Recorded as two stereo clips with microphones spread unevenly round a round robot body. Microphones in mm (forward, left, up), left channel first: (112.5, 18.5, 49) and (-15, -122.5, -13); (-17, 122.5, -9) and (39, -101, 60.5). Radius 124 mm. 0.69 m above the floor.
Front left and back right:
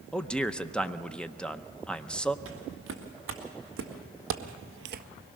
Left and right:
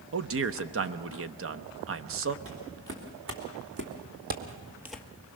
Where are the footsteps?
110° right, 4 m; by 5.1 s 150° right, 0.6 m.